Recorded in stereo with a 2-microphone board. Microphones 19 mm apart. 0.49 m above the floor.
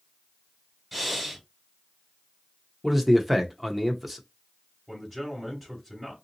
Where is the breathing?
10° right (ahead or behind), 1.7 m.